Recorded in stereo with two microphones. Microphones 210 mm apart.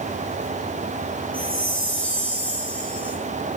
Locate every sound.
1.3 s a chime: 5° left (ahead or behind), 5.5 m